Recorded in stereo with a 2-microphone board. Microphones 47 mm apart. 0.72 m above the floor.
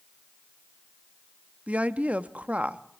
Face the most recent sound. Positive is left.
turn(degrees=-30)  # may be behind; listen again after turning